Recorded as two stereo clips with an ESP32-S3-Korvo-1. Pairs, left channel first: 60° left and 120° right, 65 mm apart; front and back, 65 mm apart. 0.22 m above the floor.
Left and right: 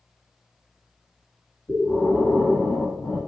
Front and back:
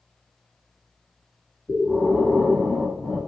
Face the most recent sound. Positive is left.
turn(degrees=70)